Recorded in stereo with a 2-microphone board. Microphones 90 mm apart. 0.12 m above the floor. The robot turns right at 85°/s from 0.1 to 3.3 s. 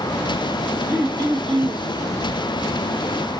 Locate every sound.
0.9 s throat clearing: 160° right, 0.7 m; by 1.9 s 80° right, 0.7 m